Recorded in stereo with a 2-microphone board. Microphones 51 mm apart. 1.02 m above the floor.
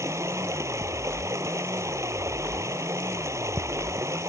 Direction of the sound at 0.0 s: 70° right (ahead or behind).